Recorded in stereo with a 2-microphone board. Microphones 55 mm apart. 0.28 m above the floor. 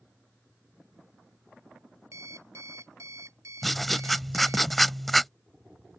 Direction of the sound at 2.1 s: 75° right (ahead or behind).